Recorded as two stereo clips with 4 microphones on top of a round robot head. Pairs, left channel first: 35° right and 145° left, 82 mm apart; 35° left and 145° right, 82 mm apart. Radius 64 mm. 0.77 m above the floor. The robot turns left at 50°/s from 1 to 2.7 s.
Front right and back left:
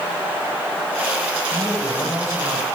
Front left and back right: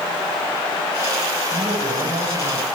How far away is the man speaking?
About 4 m.